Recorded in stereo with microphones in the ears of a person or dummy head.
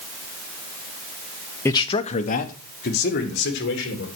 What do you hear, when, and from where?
1.6 s a man speaking: 15° left (ahead or behind), 0.7 m; by 4.1 s 60° left (ahead or behind), 3 m